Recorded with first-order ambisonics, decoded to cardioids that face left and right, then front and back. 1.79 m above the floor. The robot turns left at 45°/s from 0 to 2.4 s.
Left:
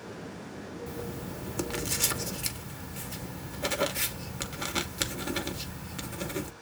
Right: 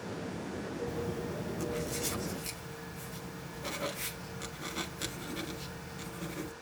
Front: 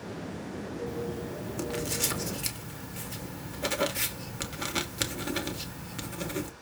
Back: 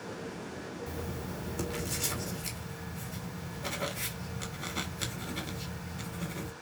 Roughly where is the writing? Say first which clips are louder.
Right 2 dB, front 5 dB; behind left.